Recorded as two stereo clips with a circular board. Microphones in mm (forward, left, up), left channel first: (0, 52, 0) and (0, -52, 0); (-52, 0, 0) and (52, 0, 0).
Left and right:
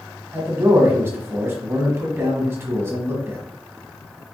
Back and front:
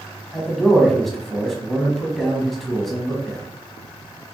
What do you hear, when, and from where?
0.3 s a man speaking: 95° right, 1.1 m